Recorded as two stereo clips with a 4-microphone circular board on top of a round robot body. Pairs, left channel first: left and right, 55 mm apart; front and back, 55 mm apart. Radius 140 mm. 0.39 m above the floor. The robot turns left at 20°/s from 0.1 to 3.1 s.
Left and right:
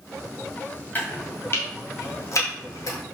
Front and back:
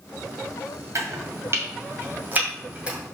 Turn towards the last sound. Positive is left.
turn(degrees=105)